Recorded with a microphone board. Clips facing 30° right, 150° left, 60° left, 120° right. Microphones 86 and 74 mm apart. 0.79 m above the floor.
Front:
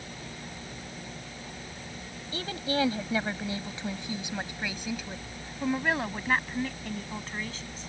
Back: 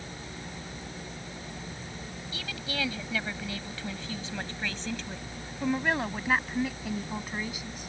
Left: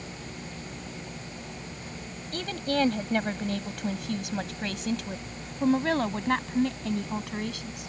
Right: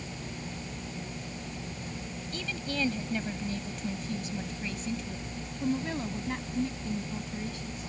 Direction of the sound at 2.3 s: 25° left.